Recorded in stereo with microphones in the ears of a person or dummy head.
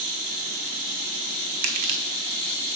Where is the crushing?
50° right (ahead or behind), 1.2 m.